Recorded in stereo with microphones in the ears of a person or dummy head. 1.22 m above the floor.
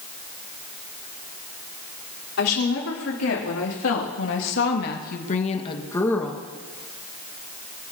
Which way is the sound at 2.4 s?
80° left.